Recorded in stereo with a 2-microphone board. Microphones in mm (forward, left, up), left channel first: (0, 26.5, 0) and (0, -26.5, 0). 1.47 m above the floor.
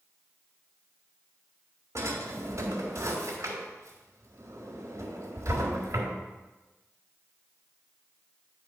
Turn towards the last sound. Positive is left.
turn(degrees=-60)  # may be behind; listen again after turning